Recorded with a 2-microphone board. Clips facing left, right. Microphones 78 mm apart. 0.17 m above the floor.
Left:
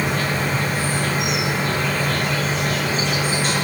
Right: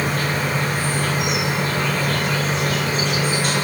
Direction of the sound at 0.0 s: 50° right (ahead or behind).